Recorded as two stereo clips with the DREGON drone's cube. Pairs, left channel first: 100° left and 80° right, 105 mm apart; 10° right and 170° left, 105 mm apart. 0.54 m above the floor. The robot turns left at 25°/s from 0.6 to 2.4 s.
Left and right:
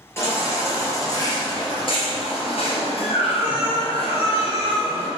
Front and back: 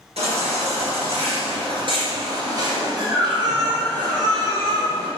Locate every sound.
0.2 s a baby crying: 165° left, 2.5 m; by 5.1 s 120° left, 2.5 m